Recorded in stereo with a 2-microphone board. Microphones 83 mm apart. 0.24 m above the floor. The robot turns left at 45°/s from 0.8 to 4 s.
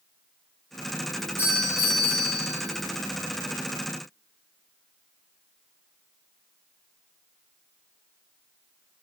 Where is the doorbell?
40° right, 3 m; by 2.4 s 90° right, 3 m.